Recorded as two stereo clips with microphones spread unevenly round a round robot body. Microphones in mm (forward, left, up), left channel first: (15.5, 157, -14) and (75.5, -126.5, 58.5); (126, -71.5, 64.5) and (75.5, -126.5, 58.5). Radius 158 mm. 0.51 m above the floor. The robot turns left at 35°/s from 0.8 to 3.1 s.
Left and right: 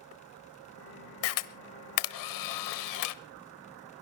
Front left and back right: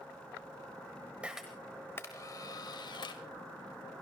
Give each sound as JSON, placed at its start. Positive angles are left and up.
{"t": 1.2, "sound": "a camera shutter", "azimuth_deg": 145, "distance_m": 1.0}